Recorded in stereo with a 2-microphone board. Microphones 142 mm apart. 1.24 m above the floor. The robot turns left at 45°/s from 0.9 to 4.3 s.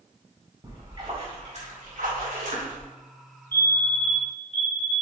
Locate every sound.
0.6 s a splash: 25° right, 3 m; by 2.9 s 115° right, 3 m
3.5 s a fire alarm: 165° left, 1.5 m; by 4.9 s 125° left, 1.5 m